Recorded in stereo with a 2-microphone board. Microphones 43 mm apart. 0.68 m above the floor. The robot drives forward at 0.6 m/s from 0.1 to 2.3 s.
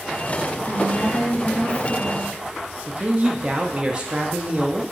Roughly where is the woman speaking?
Left.